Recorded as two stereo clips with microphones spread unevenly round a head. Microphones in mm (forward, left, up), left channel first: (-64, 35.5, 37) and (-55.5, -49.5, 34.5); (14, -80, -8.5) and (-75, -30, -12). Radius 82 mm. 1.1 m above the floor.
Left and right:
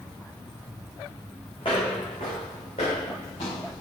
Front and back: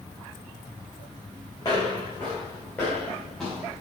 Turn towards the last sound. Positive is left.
turn(degrees=60)